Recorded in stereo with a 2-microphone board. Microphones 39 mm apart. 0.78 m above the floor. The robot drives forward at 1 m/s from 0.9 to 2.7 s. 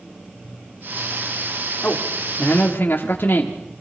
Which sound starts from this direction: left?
A man speaking, at 1.8 s.